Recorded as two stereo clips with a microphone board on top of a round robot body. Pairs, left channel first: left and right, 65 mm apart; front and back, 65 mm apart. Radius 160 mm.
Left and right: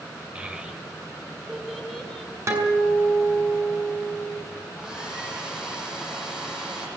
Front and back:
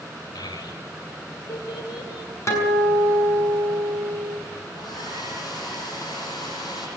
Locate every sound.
0.3 s a child speaking: 15° right, 3.5 m; by 2.3 s 10° left, 4.5 m
2.5 s a guitar: 45° right, 6.5 m
4.7 s a hair dryer: 10° right, 9.5 m